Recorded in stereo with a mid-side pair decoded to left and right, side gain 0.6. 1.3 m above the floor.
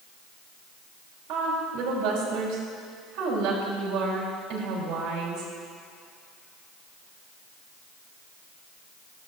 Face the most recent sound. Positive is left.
turn(degrees=-65)